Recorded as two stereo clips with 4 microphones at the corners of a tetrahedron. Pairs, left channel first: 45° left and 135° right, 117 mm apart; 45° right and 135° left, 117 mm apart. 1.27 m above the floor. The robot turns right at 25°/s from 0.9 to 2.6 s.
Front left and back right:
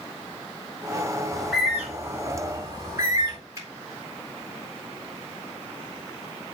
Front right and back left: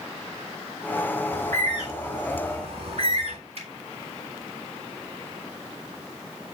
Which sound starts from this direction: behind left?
A bird, at 1.3 s.